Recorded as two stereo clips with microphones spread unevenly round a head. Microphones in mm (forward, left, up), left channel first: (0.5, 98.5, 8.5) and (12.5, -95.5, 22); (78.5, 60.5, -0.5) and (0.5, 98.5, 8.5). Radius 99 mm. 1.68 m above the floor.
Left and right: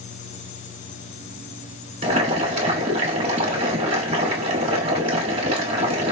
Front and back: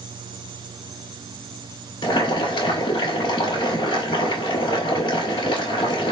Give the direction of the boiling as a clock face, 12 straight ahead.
1 o'clock.